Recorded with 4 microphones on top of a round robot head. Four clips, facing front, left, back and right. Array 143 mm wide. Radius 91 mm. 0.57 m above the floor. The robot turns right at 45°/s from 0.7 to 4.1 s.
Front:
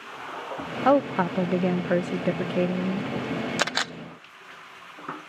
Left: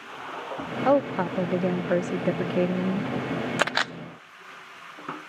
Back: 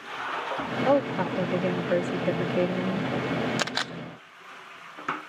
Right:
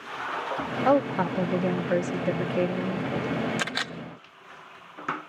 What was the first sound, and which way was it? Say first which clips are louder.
A woman speaking: left 1 dB, front 3 dB; 10° right.